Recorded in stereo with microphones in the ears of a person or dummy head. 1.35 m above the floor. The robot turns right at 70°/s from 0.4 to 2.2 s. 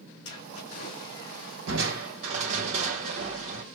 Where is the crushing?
75° right, 1.3 m; by 3.6 s 40° right, 1.3 m.